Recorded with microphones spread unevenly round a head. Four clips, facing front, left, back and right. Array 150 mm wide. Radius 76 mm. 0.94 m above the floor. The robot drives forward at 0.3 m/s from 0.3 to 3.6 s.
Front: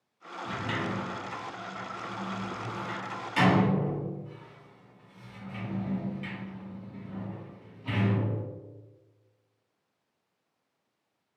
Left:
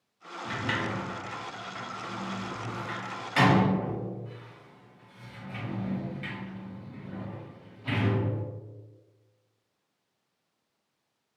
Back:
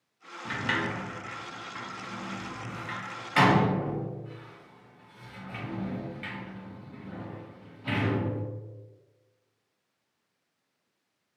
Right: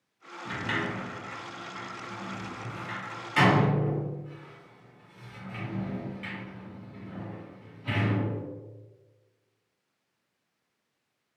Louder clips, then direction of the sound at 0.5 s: Even, back 2 dB; 175° left.